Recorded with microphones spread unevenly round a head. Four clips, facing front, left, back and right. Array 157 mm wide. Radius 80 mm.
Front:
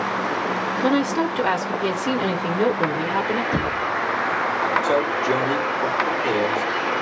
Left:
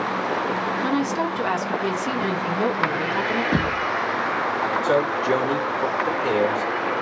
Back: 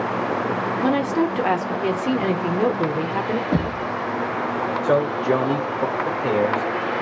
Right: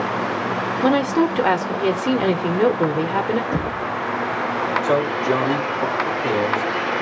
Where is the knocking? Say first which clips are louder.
Left 1 dB, even; 155° left, 1.2 m.